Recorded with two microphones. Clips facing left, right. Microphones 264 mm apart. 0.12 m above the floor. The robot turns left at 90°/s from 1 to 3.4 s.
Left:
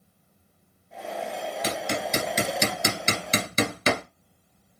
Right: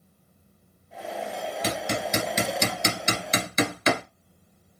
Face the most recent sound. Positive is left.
turn(degrees=35)  # may be behind; listen again after turning